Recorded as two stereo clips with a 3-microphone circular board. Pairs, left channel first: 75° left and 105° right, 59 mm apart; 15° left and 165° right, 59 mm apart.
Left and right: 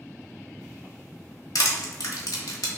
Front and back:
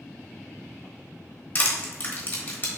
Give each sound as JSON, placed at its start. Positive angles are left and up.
{"t": 1.6, "sound": "crushing", "azimuth_deg": 70, "distance_m": 1.1}